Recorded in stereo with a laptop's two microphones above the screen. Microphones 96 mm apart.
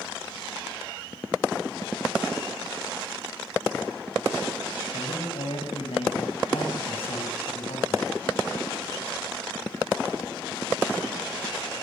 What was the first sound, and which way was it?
A man speaking, 85° left.